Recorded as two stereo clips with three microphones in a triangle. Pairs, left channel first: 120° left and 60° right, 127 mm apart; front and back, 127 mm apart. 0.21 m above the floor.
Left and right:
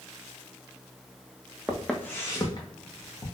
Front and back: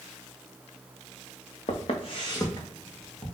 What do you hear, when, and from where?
1.7 s footsteps: 25° left, 0.8 m; by 3.4 s 80° left, 1.5 m